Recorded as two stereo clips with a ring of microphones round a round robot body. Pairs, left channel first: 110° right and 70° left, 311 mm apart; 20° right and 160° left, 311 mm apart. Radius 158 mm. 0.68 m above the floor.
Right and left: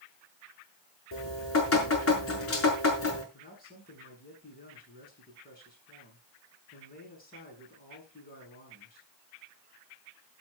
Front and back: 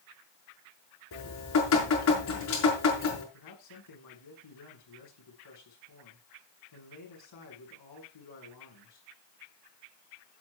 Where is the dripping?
65° right, 5.5 m.